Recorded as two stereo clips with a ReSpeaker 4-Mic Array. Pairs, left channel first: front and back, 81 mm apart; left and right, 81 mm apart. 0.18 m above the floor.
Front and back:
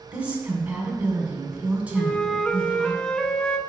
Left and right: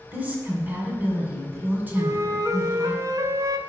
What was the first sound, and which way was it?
A woman speaking, 125° right.